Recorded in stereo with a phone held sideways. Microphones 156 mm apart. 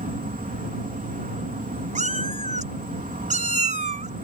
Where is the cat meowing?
50° right (ahead or behind).